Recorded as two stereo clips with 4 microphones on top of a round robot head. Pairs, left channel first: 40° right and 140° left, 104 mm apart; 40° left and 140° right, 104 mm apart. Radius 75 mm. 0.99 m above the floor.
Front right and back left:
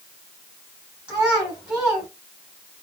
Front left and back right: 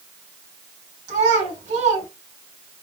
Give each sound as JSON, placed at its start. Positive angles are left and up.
{"t": 1.1, "sound": "a child speaking", "azimuth_deg": -140, "distance_m": 6.0}